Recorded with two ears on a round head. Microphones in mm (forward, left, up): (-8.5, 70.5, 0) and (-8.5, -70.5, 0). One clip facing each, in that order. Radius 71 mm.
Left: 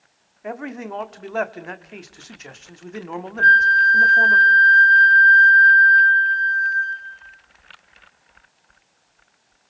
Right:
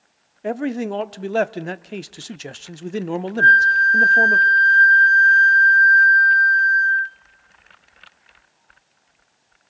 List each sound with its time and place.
0.4 s a man speaking: 35° right (ahead or behind), 0.8 m
3.4 s a flute: 45° right (ahead or behind), 3 m